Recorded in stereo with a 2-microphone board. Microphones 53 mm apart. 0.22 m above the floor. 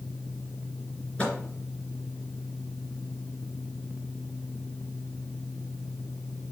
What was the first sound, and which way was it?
A microwave, 25° left (ahead or behind).